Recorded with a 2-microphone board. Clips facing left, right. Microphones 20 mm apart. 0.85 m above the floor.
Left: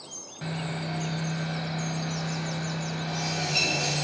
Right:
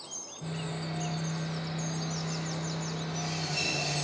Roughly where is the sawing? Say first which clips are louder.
Left 5 dB; left.